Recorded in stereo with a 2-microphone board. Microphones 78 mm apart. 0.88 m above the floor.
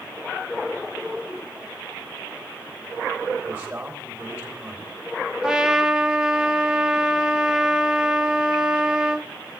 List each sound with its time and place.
3.5 s a man speaking: 20° right (ahead or behind), 3 m
5.4 s a trumpet: 10° right (ahead or behind), 0.5 m